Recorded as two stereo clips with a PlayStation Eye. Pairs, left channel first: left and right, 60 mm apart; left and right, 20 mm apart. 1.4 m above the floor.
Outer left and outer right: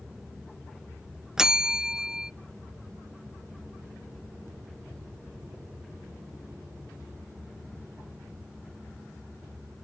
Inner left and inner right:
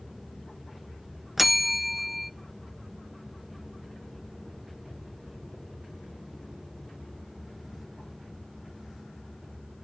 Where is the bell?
10° right (ahead or behind), 0.5 m.